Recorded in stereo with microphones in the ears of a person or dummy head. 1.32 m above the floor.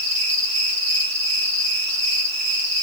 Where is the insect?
65° right (ahead or behind), 5.5 m.